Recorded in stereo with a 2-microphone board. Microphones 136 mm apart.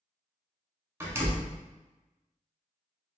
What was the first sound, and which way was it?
A door slam, 20° right (ahead or behind).